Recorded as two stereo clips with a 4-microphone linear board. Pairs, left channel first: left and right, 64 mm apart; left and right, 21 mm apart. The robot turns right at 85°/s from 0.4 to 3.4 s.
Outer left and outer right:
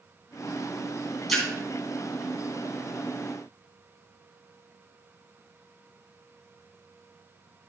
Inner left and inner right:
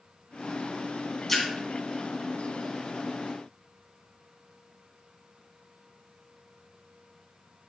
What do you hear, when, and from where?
1.3 s a splash: centre (ahead or behind), 3 m; by 1.4 s 10° left (ahead or behind), 3 m